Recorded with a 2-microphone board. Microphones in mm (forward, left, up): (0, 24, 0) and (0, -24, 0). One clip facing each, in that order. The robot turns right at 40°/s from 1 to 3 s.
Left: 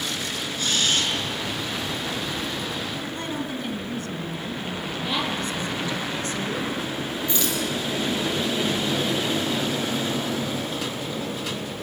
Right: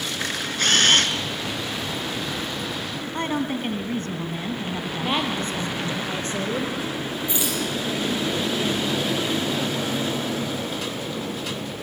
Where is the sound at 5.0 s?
35° right (ahead or behind), 5 m.